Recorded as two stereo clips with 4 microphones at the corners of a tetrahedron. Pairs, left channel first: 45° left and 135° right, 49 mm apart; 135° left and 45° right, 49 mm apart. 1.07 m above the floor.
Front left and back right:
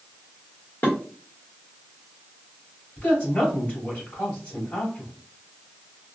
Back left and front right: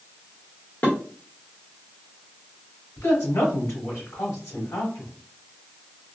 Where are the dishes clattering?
85° left, 1.8 m.